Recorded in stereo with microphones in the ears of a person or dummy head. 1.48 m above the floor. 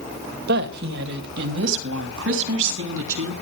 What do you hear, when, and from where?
0.5 s a woman speaking: 60° right (ahead or behind), 2 m; by 3.3 s 70° right (ahead or behind), 3.5 m